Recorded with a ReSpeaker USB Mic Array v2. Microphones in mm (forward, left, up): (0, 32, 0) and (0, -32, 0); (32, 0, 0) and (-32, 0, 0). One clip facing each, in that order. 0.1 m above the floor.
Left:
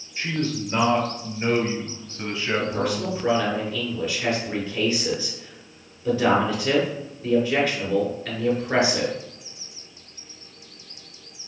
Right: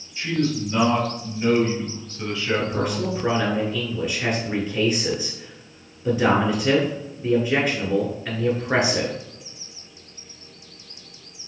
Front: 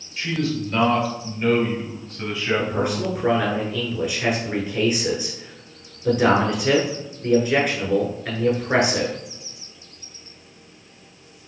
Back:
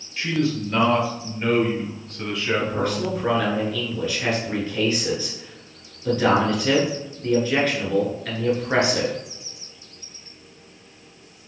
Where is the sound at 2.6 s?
50° right, 1.1 m.